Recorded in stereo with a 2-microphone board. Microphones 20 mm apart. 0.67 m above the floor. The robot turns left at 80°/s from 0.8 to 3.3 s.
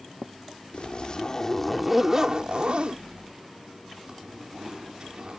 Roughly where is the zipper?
Left.